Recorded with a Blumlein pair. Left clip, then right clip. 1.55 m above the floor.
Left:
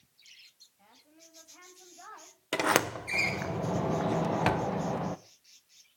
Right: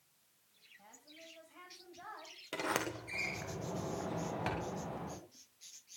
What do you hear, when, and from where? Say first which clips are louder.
0.8 s a woman speaking: right 2 dB; straight ahead, 8 m
2.5 s a sliding door: left 10 dB; 60° left, 1.6 m